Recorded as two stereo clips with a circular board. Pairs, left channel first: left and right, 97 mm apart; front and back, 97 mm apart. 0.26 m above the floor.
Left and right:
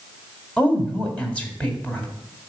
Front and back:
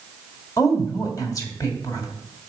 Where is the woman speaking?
25° left, 1.8 m.